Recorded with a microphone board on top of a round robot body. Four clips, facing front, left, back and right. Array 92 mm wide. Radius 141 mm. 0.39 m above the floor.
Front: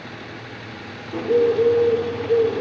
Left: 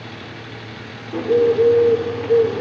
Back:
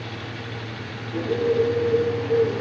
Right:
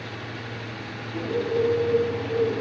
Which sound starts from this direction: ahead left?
A bird, at 1.1 s.